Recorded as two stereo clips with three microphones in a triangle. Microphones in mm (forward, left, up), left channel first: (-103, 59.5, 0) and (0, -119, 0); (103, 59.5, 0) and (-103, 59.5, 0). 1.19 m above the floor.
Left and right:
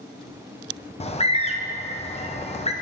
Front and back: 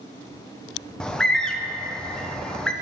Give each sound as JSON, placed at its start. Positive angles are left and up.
{"t": 1.0, "sound": "a bird", "azimuth_deg": 85, "distance_m": 0.5}